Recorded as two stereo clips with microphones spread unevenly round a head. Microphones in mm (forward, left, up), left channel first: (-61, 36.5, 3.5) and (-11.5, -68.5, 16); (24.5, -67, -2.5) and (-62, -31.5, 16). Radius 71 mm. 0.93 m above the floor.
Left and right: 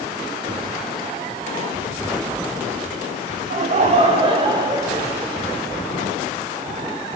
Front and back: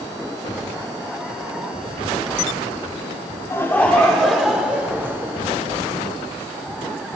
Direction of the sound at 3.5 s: 85° right.